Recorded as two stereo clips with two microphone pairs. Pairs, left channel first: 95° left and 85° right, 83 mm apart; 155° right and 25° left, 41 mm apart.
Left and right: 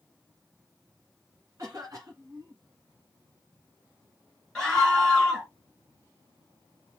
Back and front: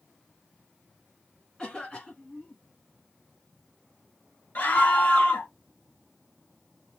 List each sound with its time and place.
1.6 s a cough: 95° right, 1.5 m
4.5 s a scream: 170° left, 2.5 m